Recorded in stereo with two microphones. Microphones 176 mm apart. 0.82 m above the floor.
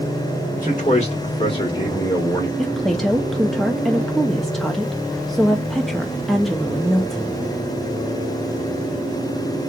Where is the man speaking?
50° left (ahead or behind), 1.8 m; by 2.5 s 15° left (ahead or behind), 2.0 m.